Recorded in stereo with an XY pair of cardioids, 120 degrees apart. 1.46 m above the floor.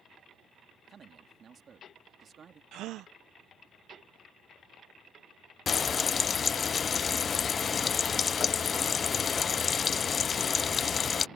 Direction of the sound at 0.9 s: 40° right.